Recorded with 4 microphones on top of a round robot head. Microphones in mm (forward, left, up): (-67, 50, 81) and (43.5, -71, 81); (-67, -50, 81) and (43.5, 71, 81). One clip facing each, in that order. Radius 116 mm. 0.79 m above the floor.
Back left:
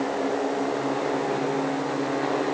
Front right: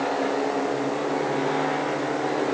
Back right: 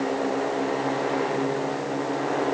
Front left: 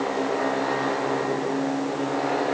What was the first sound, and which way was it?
Only background noise.